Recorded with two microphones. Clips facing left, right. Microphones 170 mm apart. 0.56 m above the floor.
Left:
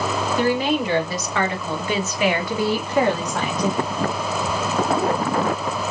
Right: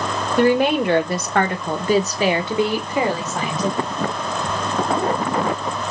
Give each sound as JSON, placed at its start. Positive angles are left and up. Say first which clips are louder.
{"t": 0.4, "sound": "a woman speaking", "louder": "right 6 dB", "side_deg": -60, "distance_m": 1.6}